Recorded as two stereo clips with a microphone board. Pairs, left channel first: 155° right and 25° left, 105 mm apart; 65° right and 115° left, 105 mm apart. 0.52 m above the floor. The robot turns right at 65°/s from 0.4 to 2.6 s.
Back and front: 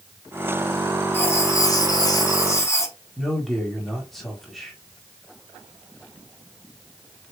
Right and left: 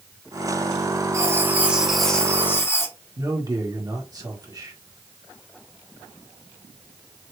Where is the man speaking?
115° left, 1.5 m.